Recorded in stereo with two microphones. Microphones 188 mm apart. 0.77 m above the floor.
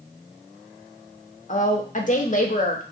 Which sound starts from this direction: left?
A woman speaking, at 1.5 s.